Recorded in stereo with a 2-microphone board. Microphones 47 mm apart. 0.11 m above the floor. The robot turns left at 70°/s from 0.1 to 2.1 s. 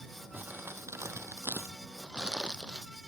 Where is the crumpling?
40° right; by 2.9 s 160° right.